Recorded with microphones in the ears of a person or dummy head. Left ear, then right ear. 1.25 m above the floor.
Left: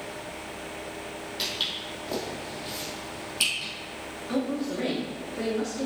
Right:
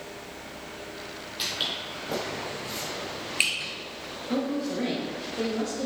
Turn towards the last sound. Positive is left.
turn(degrees=20)  # may be behind; listen again after turning